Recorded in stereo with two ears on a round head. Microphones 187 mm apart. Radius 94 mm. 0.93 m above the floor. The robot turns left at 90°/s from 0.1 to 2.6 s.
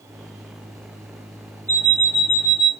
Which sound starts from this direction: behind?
An alarm clock, at 1.7 s.